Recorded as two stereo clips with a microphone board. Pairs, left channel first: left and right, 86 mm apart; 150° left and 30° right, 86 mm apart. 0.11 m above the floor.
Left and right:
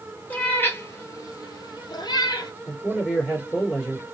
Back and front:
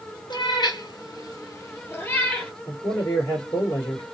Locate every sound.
0.3 s a cat meowing: 160° left, 1.0 m; by 2.5 s 80° left, 1.0 m
2.7 s a man speaking: straight behind, 2 m